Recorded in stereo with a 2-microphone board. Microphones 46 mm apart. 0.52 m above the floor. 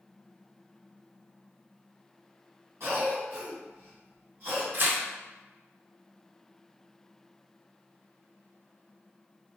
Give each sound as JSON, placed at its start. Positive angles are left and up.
{"t": 2.8, "sound": "a cough", "side_deg": -65, "distance_m": 1.9}
{"t": 4.7, "sound": "tearing paper", "side_deg": -45, "distance_m": 0.5}